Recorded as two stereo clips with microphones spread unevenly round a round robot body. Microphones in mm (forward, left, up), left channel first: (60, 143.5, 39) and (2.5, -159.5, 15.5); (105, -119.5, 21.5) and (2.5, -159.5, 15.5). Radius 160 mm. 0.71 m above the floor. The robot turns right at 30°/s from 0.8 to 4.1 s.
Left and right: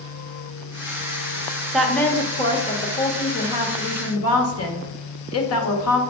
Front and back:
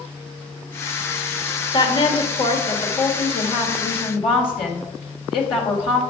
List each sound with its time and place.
1.7 s a woman speaking: 15° right, 1.5 m; by 6.0 s 55° left, 1.5 m